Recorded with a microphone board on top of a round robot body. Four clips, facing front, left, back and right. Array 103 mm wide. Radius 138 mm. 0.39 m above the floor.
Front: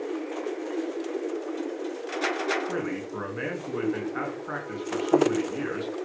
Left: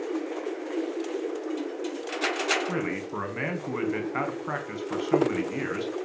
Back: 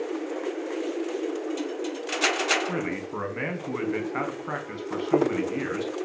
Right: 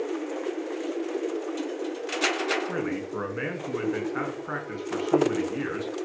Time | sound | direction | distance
2.7 | a man speaking | 130° left | 4 m